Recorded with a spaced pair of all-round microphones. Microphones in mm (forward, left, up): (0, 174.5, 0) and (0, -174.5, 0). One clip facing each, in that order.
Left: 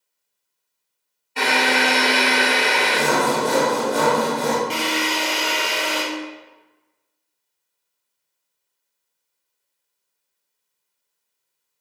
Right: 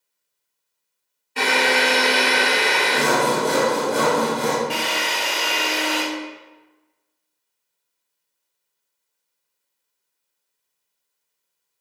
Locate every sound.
1.4 s a drill: 25° right (ahead or behind), 2 m
2.9 s sawing: 5° right (ahead or behind), 0.9 m
4.7 s a drill: 5° left (ahead or behind), 1.0 m